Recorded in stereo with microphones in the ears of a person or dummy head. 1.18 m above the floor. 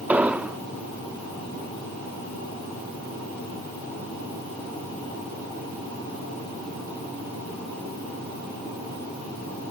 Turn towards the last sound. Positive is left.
turn(degrees=0)  # may be behind; listen again after turning